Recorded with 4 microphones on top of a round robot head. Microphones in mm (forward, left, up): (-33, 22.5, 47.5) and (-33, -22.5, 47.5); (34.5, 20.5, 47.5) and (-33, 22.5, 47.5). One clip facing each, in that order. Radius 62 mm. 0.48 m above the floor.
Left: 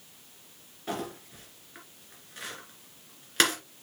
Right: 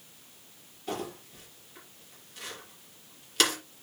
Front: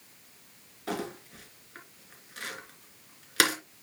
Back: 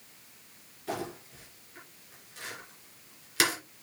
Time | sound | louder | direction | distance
0.9 | crumpling | left 1 dB, front 1 dB | 25° left | 3 m